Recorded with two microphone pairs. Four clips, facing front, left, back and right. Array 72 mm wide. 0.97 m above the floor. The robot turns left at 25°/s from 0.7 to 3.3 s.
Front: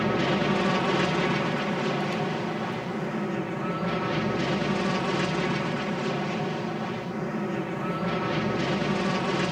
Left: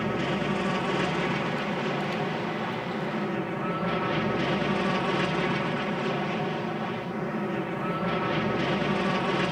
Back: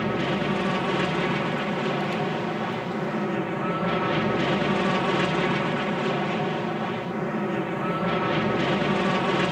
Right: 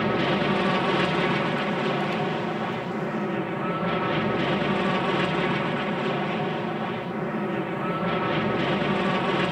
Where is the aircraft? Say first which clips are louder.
Right 5 dB, front 1 dB; 85° right; by 9.5 s 150° right.